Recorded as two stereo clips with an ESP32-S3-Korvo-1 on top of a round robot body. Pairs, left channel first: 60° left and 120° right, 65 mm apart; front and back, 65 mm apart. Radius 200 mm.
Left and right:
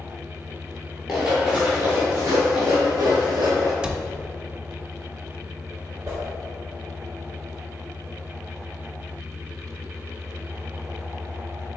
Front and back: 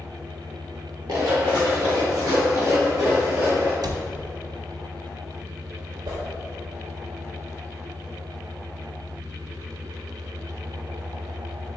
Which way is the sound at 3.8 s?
165° left.